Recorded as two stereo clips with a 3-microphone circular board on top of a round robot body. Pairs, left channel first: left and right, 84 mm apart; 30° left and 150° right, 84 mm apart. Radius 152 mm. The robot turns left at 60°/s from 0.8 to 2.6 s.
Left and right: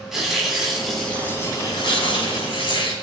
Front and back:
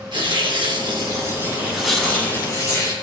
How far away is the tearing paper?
About 10 m.